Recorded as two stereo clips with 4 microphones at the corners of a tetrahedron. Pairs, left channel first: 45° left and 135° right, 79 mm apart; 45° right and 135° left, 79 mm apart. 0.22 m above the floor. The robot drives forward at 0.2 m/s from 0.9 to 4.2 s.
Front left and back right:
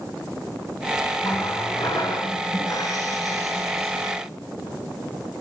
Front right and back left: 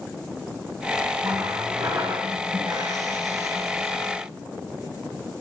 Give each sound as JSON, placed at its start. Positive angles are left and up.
{"t": 1.2, "sound": "a running tap", "azimuth_deg": 90, "distance_m": 8.5}